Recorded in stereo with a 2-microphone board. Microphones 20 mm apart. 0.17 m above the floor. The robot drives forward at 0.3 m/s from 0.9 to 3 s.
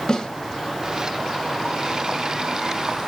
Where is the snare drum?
40° left (ahead or behind), 1.8 m.